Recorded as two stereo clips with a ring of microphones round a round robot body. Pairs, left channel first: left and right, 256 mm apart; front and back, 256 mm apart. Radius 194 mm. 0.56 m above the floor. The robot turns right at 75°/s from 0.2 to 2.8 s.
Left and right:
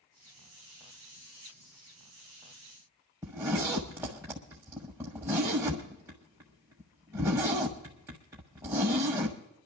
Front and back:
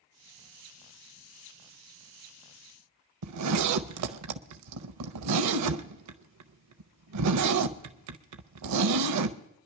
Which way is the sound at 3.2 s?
175° right.